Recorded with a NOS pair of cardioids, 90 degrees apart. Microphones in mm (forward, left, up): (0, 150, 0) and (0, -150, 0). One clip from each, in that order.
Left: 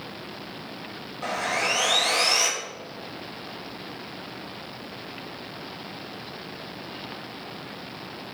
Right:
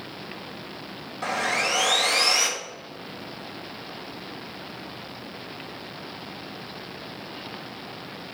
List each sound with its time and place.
1.2 s sawing: 35° right, 1.5 m